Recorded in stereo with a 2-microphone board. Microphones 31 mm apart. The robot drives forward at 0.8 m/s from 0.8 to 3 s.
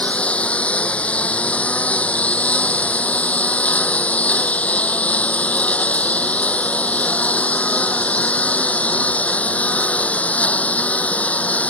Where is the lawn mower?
45° left (ahead or behind); by 11.7 s 50° left (ahead or behind).